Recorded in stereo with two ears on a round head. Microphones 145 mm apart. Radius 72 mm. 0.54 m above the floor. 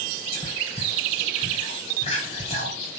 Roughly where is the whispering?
Left.